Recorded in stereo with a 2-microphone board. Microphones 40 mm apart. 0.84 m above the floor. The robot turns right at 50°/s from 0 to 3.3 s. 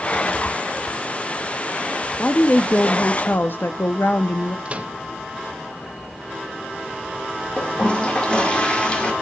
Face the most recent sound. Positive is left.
turn(degrees=25)  # may be behind; listen again after turning